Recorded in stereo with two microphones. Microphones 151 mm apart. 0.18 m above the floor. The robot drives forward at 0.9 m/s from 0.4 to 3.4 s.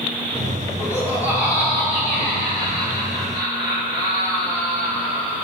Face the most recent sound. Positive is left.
turn(degrees=-5)  # may be behind; listen again after turning